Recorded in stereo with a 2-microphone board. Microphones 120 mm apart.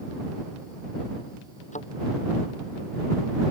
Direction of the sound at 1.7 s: 85° left.